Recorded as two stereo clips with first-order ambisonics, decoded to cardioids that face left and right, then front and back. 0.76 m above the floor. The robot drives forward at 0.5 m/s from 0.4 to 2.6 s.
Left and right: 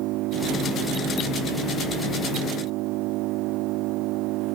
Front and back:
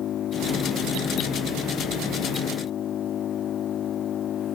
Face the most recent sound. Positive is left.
turn(degrees=-55)